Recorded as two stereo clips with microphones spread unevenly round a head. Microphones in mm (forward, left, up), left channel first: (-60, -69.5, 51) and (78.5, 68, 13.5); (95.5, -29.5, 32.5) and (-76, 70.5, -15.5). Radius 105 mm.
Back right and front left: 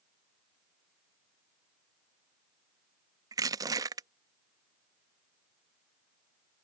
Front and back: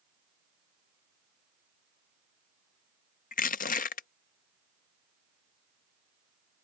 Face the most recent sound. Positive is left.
turn(degrees=-35)